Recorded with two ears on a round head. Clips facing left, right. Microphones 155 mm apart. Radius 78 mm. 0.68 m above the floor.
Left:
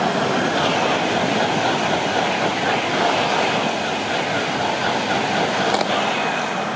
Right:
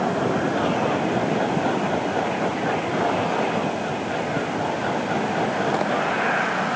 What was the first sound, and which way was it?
Only background noise.